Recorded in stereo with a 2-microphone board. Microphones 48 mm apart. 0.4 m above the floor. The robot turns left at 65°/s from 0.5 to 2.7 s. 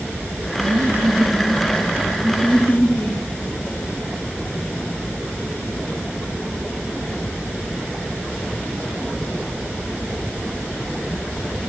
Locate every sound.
0.6 s laughter: 85° right, 4.5 m; by 3.2 s 135° left, 4.5 m